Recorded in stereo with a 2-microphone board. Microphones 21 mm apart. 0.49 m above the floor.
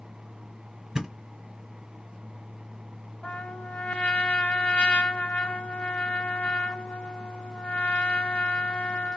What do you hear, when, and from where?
0.9 s a thud: 30° right (ahead or behind), 2.5 m
3.2 s a trumpet: 80° left, 0.7 m